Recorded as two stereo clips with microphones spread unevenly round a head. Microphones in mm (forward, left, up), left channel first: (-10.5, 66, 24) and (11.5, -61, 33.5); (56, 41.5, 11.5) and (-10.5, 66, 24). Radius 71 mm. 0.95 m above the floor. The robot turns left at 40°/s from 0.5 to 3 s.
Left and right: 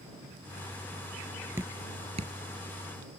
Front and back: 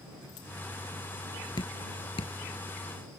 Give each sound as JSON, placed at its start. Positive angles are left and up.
{"t": 1.6, "sound": "dripping", "azimuth_deg": -10}